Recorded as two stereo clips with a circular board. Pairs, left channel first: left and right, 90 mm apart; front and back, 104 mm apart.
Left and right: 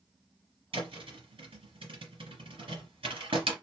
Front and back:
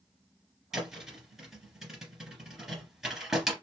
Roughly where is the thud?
Right.